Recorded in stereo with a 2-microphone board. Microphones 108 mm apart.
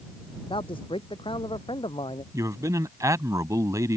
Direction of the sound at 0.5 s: 55° left (ahead or behind).